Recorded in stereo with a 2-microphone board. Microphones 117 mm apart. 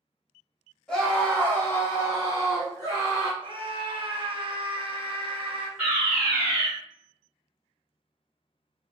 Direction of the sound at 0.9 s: 5° left (ahead or behind).